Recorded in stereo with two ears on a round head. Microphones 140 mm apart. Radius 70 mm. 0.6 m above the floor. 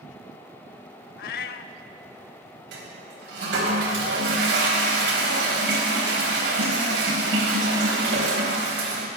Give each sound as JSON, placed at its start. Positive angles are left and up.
{"t": 1.2, "sound": "a cat meowing", "side_deg": 65, "distance_m": 0.5}
{"t": 2.7, "sound": "a toilet flushing", "side_deg": -75, "distance_m": 3.0}